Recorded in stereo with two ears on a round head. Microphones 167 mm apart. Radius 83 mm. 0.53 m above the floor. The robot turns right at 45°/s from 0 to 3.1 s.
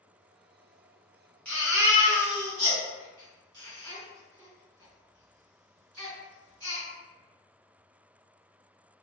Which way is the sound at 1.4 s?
5° left (ahead or behind).